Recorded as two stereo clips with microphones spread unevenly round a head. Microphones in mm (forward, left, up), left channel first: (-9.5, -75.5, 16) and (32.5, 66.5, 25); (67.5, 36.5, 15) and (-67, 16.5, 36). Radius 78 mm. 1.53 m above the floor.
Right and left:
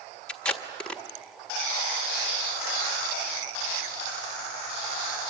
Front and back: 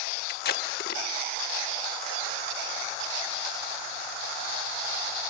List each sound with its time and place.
0.3 s tape being pulled: 20° right, 1.4 m